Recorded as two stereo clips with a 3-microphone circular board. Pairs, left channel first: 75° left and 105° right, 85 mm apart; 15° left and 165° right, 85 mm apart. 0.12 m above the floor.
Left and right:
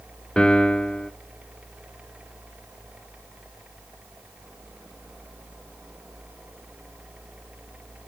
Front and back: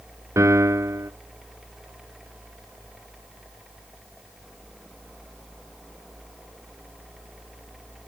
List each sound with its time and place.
0.4 s a piano: 150° left, 0.6 m